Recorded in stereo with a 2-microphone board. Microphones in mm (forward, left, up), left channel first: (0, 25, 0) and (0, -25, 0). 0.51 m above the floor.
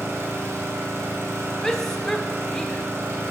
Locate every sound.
0.0 s an engine running: 60° right (ahead or behind), 3 m
1.6 s a shout: 10° left (ahead or behind), 1.3 m